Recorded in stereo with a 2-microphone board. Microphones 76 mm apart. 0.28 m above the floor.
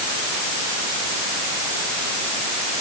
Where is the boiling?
No boiling in this recording.